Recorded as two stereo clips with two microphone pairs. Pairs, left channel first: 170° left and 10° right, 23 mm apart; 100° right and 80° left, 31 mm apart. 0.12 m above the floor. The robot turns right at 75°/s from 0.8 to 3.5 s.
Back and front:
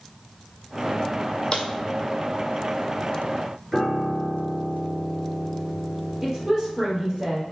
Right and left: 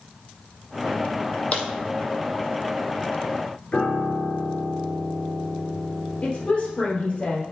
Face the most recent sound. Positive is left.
turn(degrees=-60)